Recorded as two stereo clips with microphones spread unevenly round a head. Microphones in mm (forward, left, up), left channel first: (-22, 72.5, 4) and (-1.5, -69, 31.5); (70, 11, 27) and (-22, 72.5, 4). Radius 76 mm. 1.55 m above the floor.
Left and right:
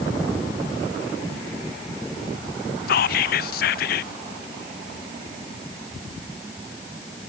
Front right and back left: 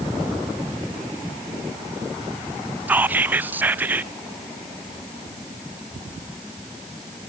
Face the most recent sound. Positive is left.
turn(degrees=70)